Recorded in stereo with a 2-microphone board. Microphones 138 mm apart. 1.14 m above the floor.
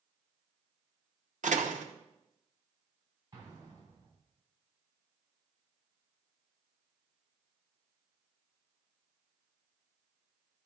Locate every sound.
1.4 s a door slam: 75° right (ahead or behind), 0.9 m
3.3 s an explosion: 30° right (ahead or behind), 3.5 m